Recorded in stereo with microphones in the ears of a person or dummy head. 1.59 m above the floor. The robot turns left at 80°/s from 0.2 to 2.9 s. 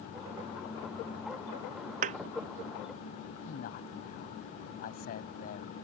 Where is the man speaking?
50° left (ahead or behind).